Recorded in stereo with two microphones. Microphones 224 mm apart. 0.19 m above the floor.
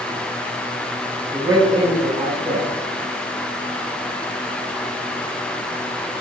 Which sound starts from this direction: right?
A man speaking, at 1.3 s.